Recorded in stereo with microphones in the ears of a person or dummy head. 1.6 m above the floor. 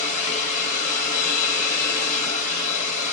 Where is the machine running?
40° left (ahead or behind), 1.0 m.